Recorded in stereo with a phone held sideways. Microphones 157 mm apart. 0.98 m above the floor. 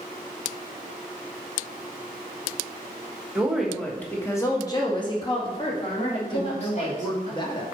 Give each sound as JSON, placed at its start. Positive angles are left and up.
{"t": 3.4, "sound": "a woman speaking", "side_deg": -5, "distance_m": 1.2}
{"t": 6.3, "sound": "a woman speaking", "side_deg": 35, "distance_m": 1.3}